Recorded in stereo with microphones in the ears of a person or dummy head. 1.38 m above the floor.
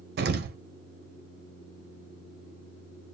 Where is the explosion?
50° right (ahead or behind), 0.5 m.